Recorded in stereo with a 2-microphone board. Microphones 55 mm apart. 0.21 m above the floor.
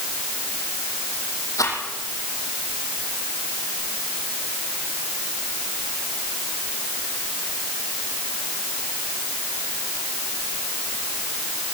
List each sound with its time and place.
1.6 s a rattle: 80° left, 7 m